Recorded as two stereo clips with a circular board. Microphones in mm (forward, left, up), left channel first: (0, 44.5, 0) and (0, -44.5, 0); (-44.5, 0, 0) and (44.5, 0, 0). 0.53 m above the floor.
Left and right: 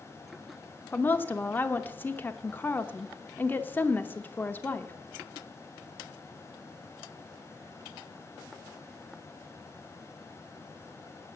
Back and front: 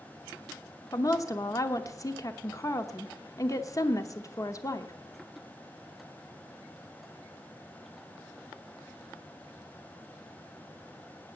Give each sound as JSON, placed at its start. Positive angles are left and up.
{"t": 0.9, "sound": "a woman speaking", "azimuth_deg": 150, "distance_m": 0.8}